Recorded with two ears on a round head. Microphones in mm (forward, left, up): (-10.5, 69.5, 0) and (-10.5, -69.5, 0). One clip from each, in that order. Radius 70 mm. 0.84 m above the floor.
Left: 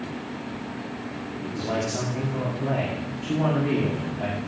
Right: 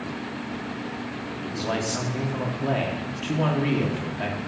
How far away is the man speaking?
About 2 m.